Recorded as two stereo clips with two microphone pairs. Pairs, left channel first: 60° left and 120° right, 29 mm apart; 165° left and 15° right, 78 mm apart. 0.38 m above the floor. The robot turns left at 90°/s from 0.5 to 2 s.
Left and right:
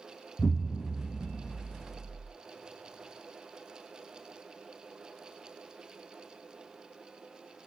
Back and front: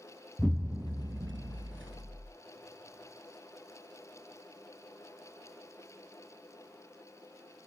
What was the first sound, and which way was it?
An explosion, 70° left.